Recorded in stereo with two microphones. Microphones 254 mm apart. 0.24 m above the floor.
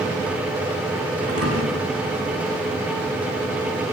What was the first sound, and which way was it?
A thud, 60° right (ahead or behind).